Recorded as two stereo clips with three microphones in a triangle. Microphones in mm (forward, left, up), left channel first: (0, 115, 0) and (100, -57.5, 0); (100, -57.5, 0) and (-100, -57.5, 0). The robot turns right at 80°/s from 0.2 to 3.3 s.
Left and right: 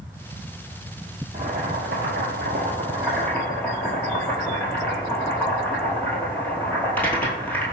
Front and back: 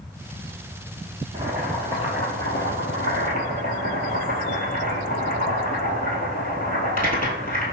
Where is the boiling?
115° right, 1.4 m; by 7.8 s 40° left, 1.4 m.